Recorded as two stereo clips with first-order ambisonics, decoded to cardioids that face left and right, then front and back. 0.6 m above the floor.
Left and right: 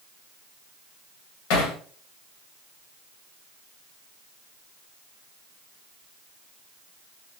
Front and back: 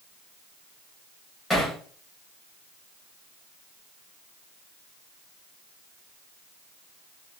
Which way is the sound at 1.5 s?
90° left.